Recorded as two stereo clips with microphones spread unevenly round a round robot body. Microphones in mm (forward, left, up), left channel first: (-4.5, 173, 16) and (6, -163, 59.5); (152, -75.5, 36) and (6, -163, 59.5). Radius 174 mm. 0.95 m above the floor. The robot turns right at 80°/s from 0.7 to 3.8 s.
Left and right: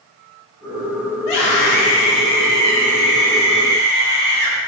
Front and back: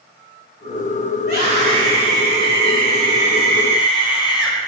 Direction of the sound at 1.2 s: 85° left.